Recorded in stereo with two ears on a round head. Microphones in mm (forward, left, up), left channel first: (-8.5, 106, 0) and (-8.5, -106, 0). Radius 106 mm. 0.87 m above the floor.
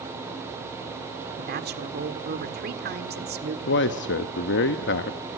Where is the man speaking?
50° left (ahead or behind), 0.9 m.